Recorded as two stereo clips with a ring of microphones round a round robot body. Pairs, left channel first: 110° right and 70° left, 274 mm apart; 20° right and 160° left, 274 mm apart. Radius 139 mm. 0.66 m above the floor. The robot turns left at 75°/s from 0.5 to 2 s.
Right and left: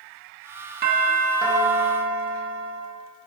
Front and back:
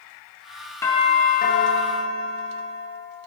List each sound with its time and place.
0.8 s a doorbell: 50° left, 1.1 m; by 2.8 s 40° right, 1.1 m